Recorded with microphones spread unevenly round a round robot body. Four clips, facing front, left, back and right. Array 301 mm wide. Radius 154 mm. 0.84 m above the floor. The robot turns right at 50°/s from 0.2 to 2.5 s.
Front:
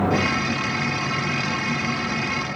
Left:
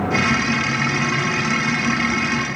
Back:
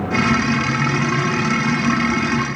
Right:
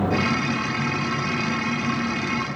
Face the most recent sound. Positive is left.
No sound to turn to.